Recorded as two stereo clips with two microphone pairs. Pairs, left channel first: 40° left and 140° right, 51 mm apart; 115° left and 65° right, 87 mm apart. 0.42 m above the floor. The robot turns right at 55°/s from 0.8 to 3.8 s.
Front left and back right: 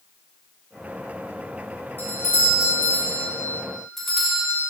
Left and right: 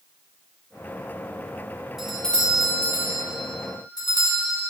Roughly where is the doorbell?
Ahead.